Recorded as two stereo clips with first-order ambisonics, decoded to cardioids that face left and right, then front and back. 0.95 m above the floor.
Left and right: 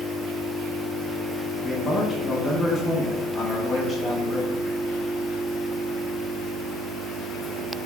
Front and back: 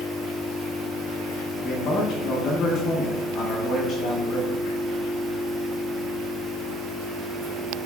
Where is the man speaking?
30° left, 0.8 m.